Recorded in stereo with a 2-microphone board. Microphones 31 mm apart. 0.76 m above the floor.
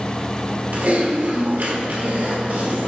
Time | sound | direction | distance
0.7 | typing on a keyboard | 60° right (ahead or behind) | 1.6 m